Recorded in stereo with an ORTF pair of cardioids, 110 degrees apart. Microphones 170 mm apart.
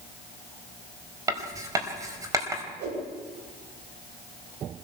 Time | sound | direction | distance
1.3 | writing | 20° right | 4.5 m
2.8 | a whoosh | 65° right | 9 m